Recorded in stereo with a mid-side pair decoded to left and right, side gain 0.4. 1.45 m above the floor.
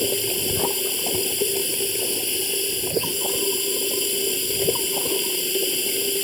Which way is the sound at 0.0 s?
10° left.